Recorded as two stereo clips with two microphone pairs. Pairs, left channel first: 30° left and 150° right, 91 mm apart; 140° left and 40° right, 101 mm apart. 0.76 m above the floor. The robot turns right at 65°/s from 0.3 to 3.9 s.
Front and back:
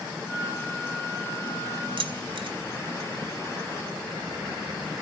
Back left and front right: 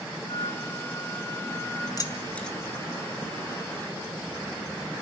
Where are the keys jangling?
165° right, 2 m; by 2.6 s 130° right, 2 m.